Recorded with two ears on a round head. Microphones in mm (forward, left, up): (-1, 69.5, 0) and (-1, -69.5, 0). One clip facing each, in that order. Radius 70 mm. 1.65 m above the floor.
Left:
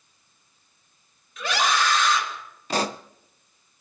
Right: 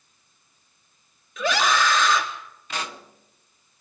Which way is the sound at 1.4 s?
70° right (ahead or behind).